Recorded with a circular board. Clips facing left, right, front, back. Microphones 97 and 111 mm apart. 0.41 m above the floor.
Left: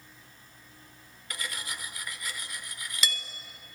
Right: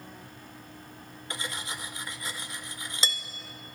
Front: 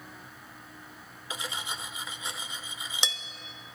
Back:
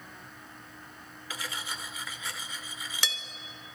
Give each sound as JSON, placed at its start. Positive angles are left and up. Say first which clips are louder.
{"t": 1.3, "sound": "cutlery clinking", "louder": "right 2 dB, front 2 dB", "azimuth_deg": -50, "distance_m": 0.7}